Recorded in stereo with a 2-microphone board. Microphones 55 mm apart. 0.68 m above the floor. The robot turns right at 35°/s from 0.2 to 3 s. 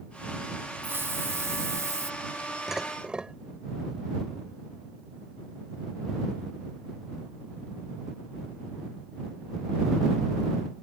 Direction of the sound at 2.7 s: 5° right (ahead or behind).